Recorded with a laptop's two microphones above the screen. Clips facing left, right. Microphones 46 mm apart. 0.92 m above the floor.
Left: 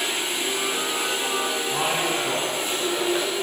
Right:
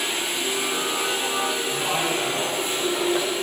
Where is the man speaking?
55° left (ahead or behind), 7 m; by 3.2 s 50° left (ahead or behind), 6 m.